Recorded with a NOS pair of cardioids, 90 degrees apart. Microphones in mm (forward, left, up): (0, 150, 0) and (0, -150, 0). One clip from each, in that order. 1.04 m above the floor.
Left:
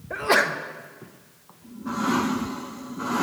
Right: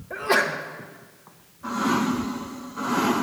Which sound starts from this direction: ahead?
A sneeze, at 0.1 s.